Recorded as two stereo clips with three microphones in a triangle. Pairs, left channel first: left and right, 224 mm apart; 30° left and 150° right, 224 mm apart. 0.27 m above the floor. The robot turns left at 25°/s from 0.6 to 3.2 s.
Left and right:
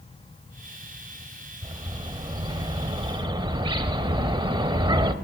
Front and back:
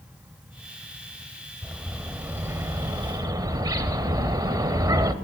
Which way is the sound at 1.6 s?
70° right.